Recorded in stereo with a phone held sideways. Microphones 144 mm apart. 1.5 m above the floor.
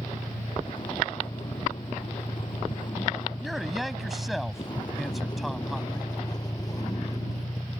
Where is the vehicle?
35° left (ahead or behind); by 7.8 s 25° left (ahead or behind).